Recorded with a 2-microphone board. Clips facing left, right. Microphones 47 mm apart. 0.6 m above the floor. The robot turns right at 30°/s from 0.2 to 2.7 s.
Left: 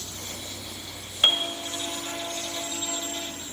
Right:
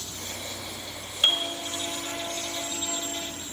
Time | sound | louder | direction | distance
1.2 | a piano | left 2 dB | 25° left (ahead or behind) | 1.7 m